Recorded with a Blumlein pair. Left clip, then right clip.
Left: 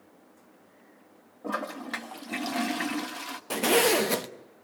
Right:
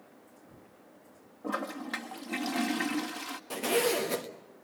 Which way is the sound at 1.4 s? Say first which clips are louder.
Left 2 dB; 5° left.